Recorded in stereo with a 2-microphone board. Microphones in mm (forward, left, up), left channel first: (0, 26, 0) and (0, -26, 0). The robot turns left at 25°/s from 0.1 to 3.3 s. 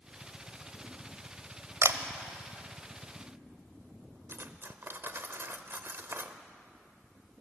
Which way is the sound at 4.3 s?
50° right (ahead or behind).